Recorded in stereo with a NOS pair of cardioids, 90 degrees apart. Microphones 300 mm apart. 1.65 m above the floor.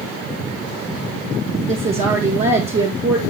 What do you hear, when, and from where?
1.7 s a woman speaking: 40° right, 2.5 m